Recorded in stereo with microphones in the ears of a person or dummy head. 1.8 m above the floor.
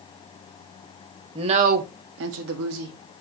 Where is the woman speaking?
30° right (ahead or behind), 0.9 m; by 3.2 s 60° right (ahead or behind), 1.2 m.